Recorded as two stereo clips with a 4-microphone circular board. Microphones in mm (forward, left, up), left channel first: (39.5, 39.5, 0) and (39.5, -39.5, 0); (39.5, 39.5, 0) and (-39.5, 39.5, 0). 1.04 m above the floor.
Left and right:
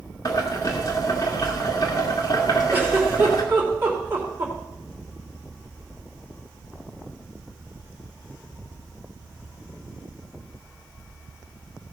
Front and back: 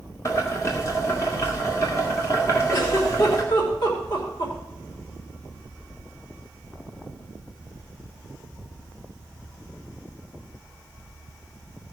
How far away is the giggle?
About 2.5 m.